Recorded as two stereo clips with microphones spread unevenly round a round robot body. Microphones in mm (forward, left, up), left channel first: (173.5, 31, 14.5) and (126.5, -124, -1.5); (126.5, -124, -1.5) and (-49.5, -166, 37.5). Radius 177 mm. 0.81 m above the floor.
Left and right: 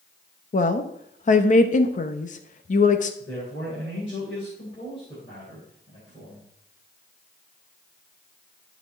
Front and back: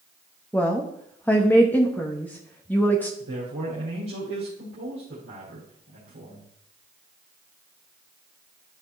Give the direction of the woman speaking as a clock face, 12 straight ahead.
9 o'clock.